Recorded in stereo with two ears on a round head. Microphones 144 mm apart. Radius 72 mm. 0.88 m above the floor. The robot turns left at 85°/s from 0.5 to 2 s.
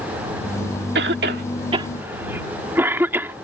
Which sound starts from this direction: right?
A cough, at 0.9 s.